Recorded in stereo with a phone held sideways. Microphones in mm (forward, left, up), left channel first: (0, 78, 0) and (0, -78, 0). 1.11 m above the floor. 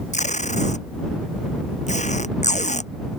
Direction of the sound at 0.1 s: 50° left (ahead or behind).